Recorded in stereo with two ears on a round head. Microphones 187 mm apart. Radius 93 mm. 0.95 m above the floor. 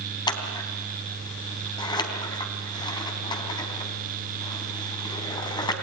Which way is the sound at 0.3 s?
20° left (ahead or behind).